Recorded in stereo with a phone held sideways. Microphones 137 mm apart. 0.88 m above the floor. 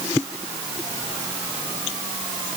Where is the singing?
I don't hear singing.